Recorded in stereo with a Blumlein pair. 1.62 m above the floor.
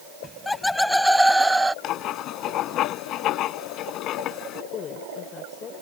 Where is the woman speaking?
25° left.